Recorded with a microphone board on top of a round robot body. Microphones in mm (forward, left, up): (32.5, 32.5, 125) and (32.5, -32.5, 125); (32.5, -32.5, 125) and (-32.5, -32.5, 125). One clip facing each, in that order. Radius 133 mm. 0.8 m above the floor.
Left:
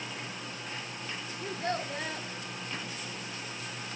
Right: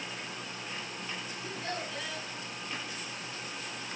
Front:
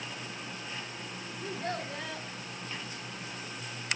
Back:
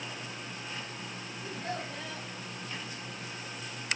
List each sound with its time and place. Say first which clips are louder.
1.4 s a child speaking: left 6 dB, front 2 dB; 40° left, 2 m